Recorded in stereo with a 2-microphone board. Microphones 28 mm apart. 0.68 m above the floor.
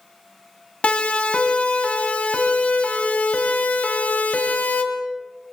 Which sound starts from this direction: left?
A siren, at 0.8 s.